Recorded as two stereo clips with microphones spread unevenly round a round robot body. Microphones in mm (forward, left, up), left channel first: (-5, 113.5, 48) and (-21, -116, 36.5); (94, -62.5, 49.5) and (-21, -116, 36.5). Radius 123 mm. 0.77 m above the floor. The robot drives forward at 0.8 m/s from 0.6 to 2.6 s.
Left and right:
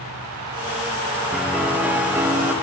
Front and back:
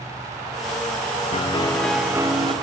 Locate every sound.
1.3 s a piano: 10° right, 0.7 m; by 2.5 s 170° right, 0.7 m